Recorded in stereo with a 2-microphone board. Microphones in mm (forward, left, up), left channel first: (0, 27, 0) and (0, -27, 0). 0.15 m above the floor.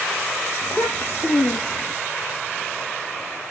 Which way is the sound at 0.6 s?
45° left (ahead or behind).